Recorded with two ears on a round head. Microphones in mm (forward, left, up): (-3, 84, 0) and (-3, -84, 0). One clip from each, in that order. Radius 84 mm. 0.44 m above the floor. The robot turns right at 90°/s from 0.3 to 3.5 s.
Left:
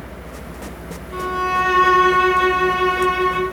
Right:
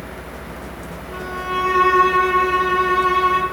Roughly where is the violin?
Ahead.